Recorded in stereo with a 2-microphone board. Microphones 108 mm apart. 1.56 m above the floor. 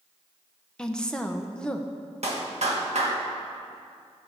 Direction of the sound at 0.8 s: 5° left (ahead or behind).